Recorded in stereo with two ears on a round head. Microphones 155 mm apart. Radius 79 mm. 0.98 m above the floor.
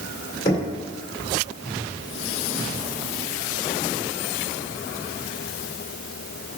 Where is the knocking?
25° left (ahead or behind), 2 m.